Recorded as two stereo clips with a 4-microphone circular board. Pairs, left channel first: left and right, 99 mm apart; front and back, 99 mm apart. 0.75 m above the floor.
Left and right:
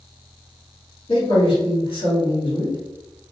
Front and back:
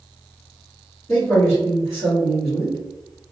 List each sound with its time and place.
1.1 s a man speaking: 60° left, 1.7 m